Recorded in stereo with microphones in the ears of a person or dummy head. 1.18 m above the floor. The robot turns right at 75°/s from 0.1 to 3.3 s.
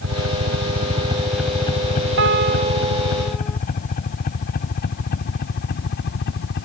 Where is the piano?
80° right; by 3.6 s 5° left.